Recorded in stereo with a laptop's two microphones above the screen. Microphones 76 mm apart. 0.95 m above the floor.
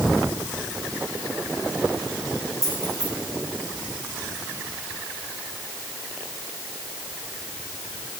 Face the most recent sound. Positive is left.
turn(degrees=-40)  # may be behind; listen again after turning